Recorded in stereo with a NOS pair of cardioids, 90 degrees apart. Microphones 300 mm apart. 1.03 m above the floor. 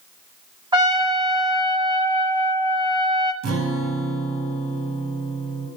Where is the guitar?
60° right, 3.5 m.